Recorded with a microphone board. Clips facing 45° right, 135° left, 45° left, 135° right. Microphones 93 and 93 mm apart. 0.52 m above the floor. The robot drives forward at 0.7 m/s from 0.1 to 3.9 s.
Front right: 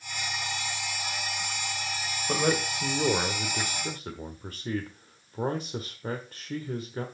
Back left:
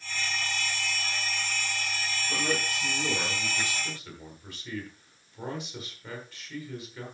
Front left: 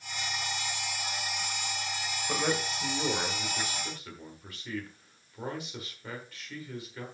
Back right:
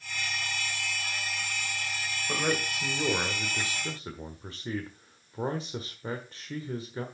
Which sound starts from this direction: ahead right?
A man speaking, at 2.3 s.